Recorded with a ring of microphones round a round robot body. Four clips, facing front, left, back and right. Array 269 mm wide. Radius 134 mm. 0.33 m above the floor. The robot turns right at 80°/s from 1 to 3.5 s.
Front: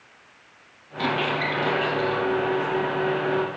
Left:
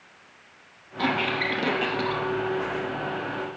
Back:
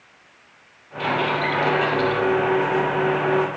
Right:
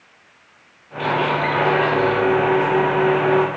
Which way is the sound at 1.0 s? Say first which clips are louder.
Right 7 dB, back 3 dB; 45° left.